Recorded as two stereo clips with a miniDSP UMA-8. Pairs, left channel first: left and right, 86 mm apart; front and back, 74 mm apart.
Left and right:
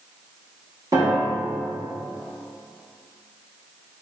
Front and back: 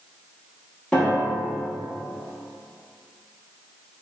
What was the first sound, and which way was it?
A piano, 75° right.